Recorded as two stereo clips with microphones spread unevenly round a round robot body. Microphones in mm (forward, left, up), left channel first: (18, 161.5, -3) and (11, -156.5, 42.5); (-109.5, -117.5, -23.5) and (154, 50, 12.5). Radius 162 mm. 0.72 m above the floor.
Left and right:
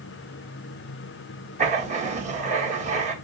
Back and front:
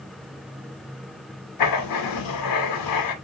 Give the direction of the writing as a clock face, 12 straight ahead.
5 o'clock.